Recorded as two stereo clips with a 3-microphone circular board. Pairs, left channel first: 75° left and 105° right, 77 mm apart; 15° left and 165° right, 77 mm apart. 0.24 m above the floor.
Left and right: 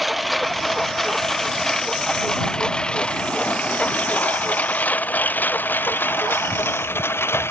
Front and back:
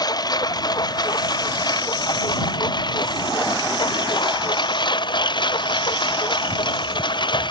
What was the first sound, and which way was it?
A lawn mower, 15° right.